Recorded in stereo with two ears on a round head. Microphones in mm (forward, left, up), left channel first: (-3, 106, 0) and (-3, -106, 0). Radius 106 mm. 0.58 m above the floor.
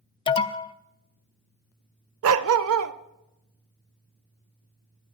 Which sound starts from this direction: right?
A dog barking, at 2.2 s.